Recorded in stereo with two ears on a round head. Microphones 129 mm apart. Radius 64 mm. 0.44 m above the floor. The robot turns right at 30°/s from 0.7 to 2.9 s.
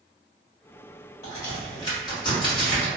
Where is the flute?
No flute in this recording.